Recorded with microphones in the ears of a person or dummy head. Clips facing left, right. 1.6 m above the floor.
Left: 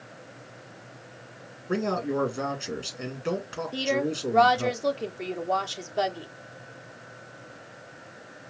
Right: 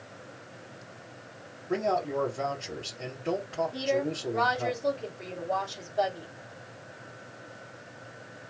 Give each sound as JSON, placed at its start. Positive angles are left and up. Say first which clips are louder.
{"t": 1.7, "sound": "a man speaking", "louder": "left 1 dB", "side_deg": 75, "distance_m": 1.9}
{"t": 3.7, "sound": "a woman speaking", "louder": "left 4 dB", "side_deg": 70, "distance_m": 0.9}